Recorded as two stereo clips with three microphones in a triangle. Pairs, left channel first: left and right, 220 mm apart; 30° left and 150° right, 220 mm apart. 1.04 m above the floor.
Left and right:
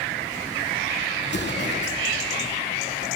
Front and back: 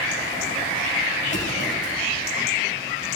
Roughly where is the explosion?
Ahead left.